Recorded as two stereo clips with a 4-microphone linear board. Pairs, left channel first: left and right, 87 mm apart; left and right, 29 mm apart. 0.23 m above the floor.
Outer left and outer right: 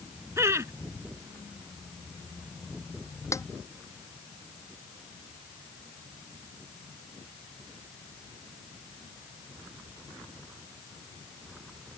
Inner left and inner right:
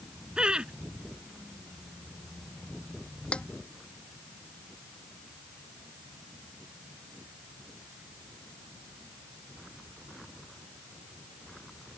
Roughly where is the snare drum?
Left.